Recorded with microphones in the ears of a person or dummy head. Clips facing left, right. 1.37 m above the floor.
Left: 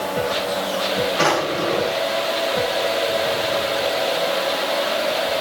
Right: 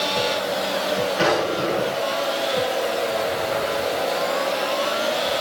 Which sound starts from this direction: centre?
A drawer, at 1.2 s.